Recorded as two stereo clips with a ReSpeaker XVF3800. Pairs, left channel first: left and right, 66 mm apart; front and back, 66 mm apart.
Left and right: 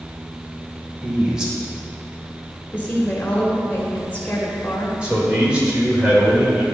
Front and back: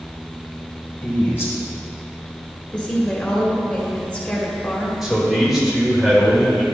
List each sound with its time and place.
1.0 s a man speaking: 20° right, 1.8 m
2.7 s a woman speaking: 50° left, 1.4 m
5.0 s a man speaking: 105° right, 1.5 m